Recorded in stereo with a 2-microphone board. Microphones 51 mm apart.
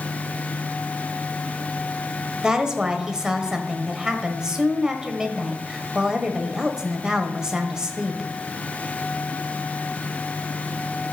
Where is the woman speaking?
15° right (ahead or behind), 1.3 m.